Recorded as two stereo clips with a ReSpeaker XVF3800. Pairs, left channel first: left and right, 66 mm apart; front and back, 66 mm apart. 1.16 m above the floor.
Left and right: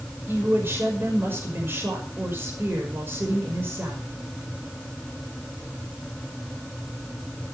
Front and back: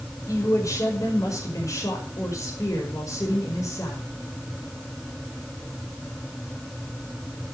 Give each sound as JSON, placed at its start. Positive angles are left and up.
{"t": 0.3, "sound": "a woman speaking", "azimuth_deg": -35, "distance_m": 5.5}